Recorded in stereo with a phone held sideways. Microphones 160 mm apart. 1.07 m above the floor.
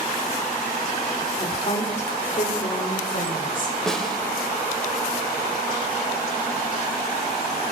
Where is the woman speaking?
35° left (ahead or behind), 2.5 m; by 3.7 s 60° left (ahead or behind), 4 m.